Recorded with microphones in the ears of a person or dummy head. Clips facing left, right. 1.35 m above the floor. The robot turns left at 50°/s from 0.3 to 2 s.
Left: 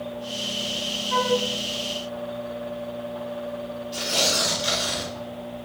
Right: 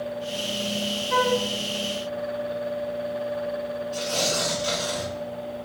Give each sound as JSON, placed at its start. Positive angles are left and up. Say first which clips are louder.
{"t": 1.1, "sound": "a flute", "louder": "even", "side_deg": -40, "distance_m": 0.8}
{"t": 3.9, "sound": "tearing paper", "louder": "left 1 dB", "side_deg": 20, "distance_m": 1.9}